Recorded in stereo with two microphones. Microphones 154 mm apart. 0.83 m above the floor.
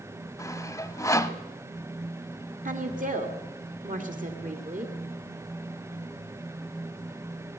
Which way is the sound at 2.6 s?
60° right (ahead or behind).